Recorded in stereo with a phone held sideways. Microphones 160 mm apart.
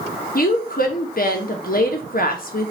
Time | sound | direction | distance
0.3 | a woman speaking | 65° left (ahead or behind) | 1.0 m